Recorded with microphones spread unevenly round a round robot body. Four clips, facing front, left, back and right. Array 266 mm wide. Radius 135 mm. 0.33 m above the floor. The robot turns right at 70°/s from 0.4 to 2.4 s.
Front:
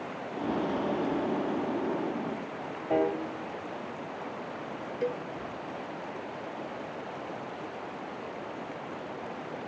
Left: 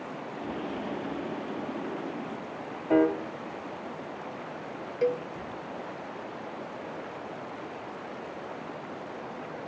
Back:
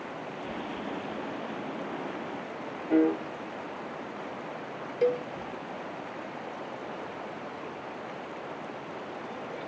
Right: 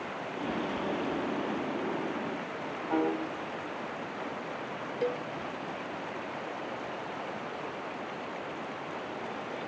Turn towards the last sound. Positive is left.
turn(degrees=155)